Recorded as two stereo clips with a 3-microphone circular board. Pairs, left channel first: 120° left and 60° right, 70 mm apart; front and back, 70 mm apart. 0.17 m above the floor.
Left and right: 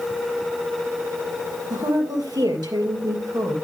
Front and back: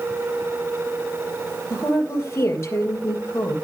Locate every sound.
1.7 s a woman speaking: 50° right, 4.5 m